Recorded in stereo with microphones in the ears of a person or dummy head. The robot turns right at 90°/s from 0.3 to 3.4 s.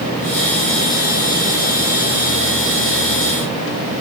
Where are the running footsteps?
I don't hear running footsteps.